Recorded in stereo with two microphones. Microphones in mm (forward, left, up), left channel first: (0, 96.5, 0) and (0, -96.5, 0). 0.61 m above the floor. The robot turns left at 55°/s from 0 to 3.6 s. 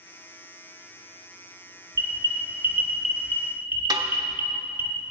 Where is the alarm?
55° right (ahead or behind), 1.7 m; by 4.9 s 10° right (ahead or behind), 1.7 m.